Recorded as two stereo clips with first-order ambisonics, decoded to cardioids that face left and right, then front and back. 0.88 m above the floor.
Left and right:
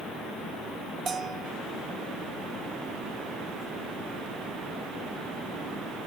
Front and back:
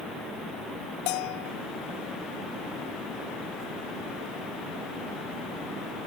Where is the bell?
15° right.